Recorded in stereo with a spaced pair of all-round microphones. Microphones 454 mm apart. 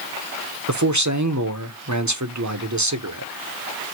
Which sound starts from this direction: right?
A man speaking, at 0.7 s.